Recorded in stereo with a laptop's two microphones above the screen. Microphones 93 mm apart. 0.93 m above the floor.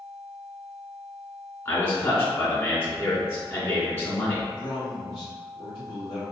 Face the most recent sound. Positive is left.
turn(degrees=65)  # may be behind; listen again after turning